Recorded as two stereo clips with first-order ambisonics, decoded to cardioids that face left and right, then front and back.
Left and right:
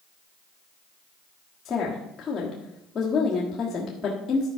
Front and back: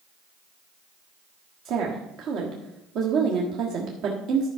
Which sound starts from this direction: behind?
A woman speaking, at 1.6 s.